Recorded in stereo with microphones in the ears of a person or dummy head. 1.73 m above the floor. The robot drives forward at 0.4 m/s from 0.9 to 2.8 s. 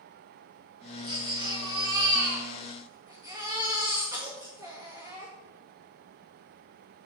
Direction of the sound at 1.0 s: 25° right (ahead or behind).